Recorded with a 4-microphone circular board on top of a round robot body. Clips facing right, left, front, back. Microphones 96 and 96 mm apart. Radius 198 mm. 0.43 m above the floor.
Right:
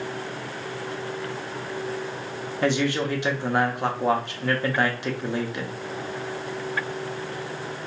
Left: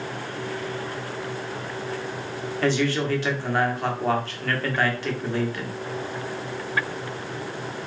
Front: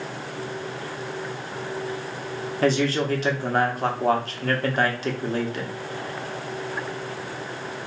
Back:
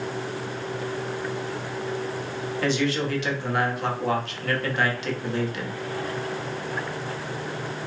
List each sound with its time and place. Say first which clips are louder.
2.6 s a man speaking: even, front 3 dB; 25° right, 1.4 m